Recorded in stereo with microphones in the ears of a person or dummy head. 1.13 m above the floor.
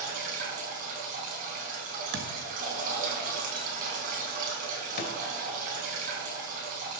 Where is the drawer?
45° left (ahead or behind), 1.9 m.